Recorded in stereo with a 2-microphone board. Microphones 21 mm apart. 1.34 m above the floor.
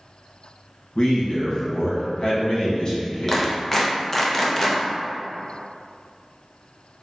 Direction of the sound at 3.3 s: 15° left (ahead or behind).